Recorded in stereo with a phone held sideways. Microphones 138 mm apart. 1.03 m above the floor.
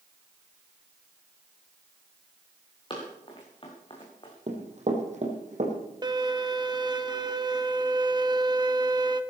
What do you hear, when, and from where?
2.9 s running footsteps: 35° left (ahead or behind), 5.5 m; by 4.3 s 40° left (ahead or behind), 4.5 m
4.5 s running footsteps: 55° right (ahead or behind), 3 m
6.0 s a violin: 30° right (ahead or behind), 0.8 m